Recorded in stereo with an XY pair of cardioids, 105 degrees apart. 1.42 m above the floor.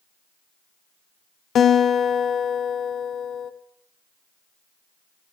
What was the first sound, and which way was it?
A guitar, 60° left.